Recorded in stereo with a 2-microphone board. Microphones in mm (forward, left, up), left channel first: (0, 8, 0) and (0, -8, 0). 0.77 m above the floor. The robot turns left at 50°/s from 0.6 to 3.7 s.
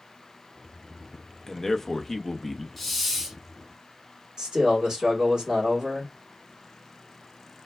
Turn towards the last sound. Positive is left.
turn(degrees=-75)  # may be behind; listen again after turning